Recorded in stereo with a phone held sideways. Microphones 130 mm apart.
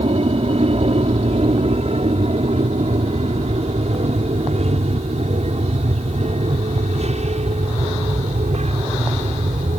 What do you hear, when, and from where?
0.0 s an aircraft: 50° right (ahead or behind); by 9.8 s 55° right (ahead or behind)